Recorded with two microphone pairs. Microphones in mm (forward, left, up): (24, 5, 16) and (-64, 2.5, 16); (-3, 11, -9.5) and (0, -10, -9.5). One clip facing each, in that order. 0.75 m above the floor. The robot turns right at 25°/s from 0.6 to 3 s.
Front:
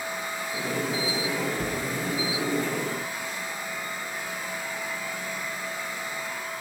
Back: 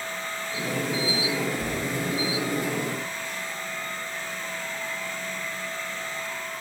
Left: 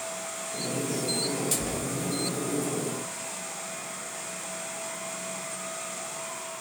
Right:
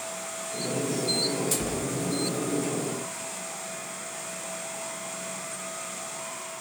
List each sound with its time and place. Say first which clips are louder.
1.6 s a cupboard door: even, right 1 dB; 45° right, 2.5 m; by 1.8 s 35° right, 2.5 m